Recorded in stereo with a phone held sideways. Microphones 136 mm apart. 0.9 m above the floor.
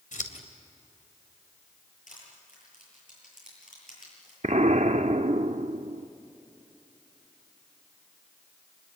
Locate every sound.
0.1 s scissors: 85° left, 2.5 m
2.1 s crushing: 85° left, 9.5 m
4.4 s an explosion: 65° right (ahead or behind), 0.7 m